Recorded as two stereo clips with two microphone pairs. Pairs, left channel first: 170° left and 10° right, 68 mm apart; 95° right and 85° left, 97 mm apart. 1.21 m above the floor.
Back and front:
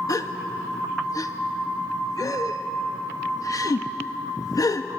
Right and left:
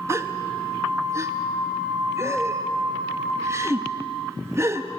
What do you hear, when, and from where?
0.1 s a gasp: 145° left, 0.9 m